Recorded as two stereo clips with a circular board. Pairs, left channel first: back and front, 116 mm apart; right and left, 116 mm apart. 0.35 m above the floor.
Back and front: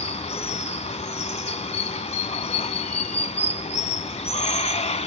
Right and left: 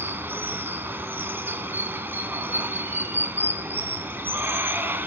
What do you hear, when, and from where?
0.0 s running water: 160° left, 1.0 m